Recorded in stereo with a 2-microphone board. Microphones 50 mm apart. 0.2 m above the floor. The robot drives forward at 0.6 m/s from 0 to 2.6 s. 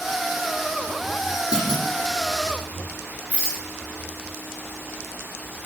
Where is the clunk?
15° right (ahead or behind), 8 m.